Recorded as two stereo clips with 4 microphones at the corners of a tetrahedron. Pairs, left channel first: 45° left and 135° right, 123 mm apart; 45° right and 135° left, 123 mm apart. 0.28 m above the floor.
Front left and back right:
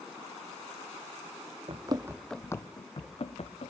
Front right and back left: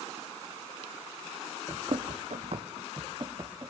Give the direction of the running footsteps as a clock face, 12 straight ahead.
6 o'clock.